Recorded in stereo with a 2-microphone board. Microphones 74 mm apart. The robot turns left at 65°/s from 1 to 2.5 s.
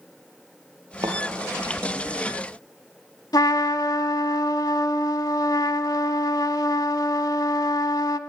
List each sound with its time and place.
1.0 s a thud: 70° right (ahead or behind), 3 m; by 1.2 s 65° right (ahead or behind), 3 m
3.3 s a trumpet: 65° left (ahead or behind), 0.7 m